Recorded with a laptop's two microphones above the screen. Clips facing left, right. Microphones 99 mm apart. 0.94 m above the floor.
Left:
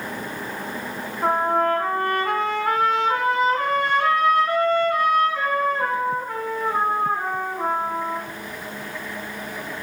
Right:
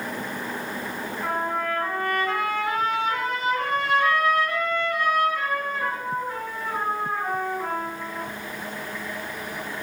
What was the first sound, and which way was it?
A trumpet, 65° left (ahead or behind).